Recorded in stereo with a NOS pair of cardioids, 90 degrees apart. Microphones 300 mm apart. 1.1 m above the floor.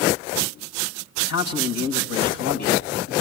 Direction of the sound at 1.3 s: 65° left.